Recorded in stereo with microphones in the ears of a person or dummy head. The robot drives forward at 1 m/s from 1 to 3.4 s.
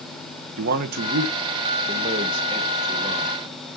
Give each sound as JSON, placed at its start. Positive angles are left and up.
{"t": 0.6, "sound": "a man speaking", "side_deg": -55, "distance_m": 1.4}